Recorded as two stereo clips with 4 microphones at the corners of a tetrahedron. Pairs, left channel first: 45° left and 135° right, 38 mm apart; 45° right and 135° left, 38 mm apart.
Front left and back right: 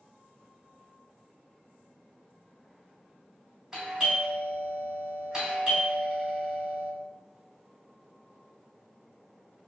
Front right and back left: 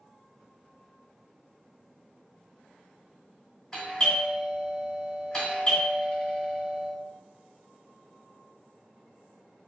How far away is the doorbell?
About 1.9 m.